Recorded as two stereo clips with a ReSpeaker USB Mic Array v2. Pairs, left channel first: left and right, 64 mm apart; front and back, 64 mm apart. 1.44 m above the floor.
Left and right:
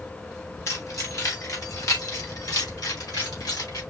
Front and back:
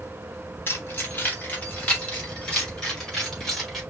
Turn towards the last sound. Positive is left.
turn(degrees=85)